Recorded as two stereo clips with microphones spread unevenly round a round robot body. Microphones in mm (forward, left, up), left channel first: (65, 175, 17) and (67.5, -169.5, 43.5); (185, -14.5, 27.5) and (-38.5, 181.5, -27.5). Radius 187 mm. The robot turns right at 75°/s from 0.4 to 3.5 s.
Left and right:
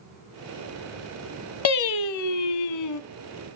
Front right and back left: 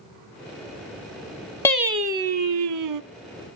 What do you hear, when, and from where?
1.6 s singing: 45° left, 0.9 m; by 3.0 s 145° left, 0.9 m